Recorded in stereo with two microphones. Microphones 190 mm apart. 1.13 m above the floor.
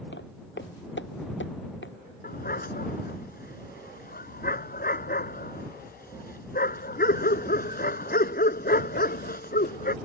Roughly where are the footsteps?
Left.